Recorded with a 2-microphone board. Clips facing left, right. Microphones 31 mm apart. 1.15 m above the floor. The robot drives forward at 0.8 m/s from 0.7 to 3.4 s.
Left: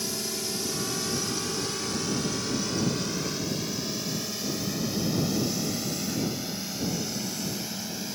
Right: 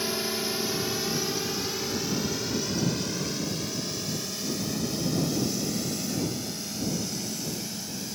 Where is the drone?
25° right (ahead or behind); by 8.2 s 15° left (ahead or behind).